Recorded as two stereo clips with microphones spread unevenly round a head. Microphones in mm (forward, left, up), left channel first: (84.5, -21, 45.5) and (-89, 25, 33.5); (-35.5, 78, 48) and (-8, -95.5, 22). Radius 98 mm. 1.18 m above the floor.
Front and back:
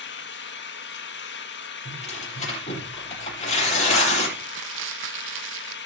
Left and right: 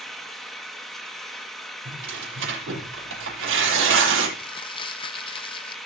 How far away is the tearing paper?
About 9 m.